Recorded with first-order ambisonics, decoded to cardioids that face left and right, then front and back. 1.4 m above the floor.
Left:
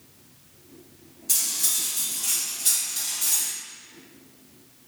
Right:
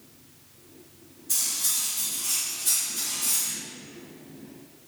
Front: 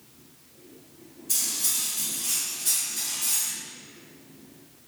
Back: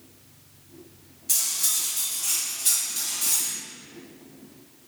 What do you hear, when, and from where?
1.3 s cutlery clinking: 130° left, 1.0 m